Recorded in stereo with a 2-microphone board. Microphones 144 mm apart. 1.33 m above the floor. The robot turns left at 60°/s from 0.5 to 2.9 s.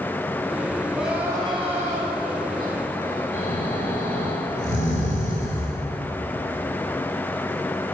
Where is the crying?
5° left, 4.5 m; by 3.2 s 115° right, 4.5 m.